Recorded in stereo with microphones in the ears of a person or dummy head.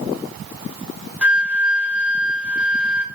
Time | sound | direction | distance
1.2 | a flute | 5° right (ahead or behind) | 3 m